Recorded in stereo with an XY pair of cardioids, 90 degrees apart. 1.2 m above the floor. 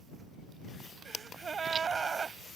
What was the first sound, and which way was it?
A gasp, 45° right.